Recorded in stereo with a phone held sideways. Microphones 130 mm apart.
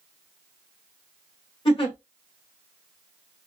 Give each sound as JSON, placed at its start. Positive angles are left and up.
{"t": 1.6, "sound": "a giggle", "side_deg": 45, "distance_m": 1.6}